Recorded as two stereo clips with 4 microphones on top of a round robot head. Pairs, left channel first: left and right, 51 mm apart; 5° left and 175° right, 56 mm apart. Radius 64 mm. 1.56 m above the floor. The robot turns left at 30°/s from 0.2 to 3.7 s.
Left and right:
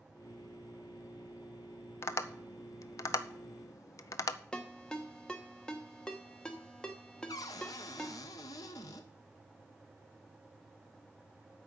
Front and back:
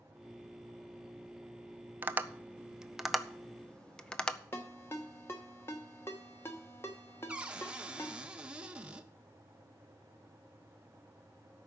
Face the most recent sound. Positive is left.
turn(degrees=115)